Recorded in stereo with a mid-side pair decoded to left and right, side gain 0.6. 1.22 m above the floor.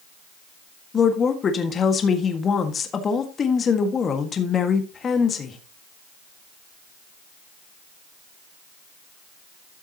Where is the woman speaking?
35° left, 1.7 m.